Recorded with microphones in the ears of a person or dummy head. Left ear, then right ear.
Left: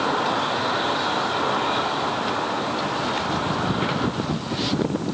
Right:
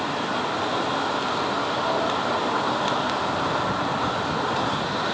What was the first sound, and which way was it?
Only background noise.